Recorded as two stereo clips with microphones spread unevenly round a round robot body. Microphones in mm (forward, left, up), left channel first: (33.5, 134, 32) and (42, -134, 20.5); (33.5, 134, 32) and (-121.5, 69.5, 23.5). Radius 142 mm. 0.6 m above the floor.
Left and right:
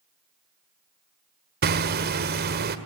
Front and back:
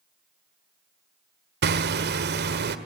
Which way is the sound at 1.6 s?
145° right.